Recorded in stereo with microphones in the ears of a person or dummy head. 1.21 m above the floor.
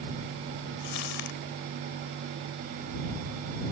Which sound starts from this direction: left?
Crumpling, at 0.8 s.